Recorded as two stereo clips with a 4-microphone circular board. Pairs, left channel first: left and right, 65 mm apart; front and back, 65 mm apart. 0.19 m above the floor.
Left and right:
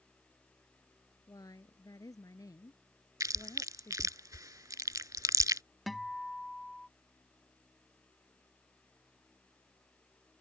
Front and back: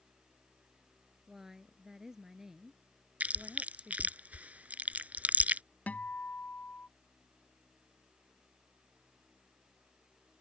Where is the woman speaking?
95° left.